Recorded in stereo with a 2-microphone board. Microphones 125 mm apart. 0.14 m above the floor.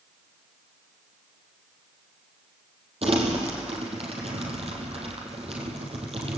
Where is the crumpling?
50° right (ahead or behind), 4.5 m.